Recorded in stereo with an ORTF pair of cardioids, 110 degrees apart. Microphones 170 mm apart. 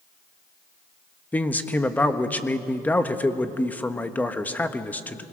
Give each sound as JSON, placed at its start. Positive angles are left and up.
{"t": 1.3, "sound": "a man speaking", "azimuth_deg": 10, "distance_m": 1.3}